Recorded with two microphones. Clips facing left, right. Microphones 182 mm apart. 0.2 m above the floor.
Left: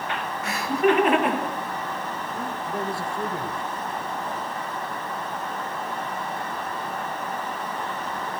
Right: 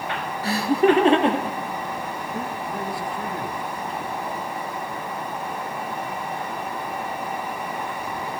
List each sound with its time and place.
0.4 s laughter: 35° right (ahead or behind), 3.5 m; by 2.5 s 25° right (ahead or behind), 6 m
2.7 s a man speaking: 20° left (ahead or behind), 3 m